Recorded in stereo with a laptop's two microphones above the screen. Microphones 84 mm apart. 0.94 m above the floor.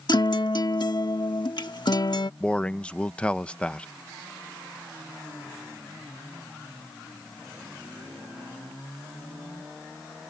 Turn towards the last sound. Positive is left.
turn(degrees=10)  # may be behind; listen again after turning